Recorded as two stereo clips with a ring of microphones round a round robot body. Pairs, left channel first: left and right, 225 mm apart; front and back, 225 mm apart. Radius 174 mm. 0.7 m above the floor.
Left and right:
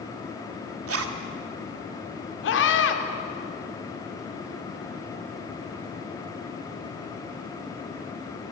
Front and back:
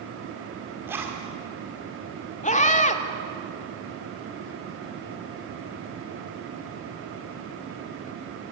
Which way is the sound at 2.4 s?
55° left.